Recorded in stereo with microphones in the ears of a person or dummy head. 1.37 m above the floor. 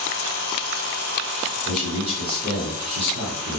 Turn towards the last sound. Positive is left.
turn(degrees=-30)  # may be behind; listen again after turning